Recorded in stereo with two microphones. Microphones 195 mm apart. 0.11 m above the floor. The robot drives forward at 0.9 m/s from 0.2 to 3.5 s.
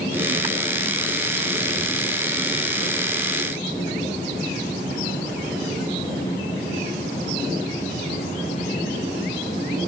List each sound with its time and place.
Only background noise.